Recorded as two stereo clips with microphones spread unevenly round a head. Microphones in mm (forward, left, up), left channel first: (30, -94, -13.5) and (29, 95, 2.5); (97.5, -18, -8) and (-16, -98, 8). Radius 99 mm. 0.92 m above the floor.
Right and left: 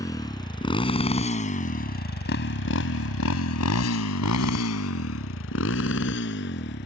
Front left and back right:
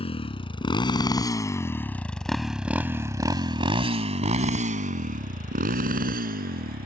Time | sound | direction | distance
0.0 | a motorcycle | 15° right | ?